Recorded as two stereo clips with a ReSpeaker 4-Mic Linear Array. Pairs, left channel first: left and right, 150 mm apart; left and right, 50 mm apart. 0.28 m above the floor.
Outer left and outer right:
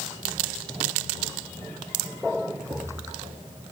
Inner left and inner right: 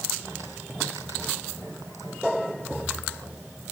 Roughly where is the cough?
No cough in this recording.